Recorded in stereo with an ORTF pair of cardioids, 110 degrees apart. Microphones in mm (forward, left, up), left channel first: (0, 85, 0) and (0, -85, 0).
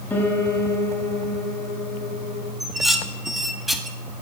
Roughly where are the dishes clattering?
Ahead.